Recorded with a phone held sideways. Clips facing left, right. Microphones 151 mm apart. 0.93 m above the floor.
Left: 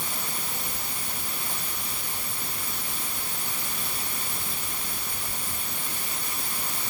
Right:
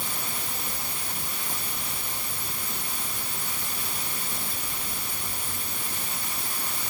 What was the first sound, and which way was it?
Only background noise.